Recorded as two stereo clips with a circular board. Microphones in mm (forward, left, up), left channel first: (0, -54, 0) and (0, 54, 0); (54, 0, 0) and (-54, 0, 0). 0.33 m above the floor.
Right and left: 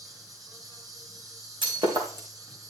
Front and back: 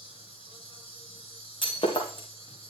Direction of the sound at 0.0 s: 35° left.